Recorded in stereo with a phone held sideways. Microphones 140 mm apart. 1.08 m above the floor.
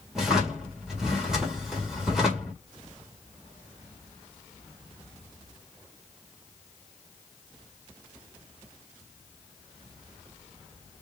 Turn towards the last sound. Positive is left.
turn(degrees=-5)  # may be behind; listen again after turning